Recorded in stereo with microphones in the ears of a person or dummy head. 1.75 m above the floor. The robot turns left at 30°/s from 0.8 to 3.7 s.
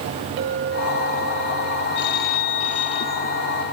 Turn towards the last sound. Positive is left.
turn(degrees=5)